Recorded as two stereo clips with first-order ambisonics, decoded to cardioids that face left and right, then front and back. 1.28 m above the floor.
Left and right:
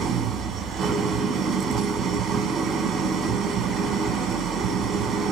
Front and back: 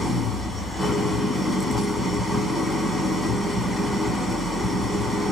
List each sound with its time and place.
0.0 s an engine running: 85° right, 1.0 m